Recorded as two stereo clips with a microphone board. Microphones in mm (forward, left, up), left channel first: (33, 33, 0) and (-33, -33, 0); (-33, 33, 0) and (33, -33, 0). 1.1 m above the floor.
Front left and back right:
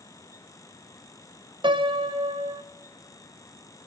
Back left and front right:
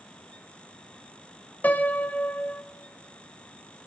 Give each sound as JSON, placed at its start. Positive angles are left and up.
{"t": 1.6, "sound": "a piano", "azimuth_deg": -155, "distance_m": 0.5}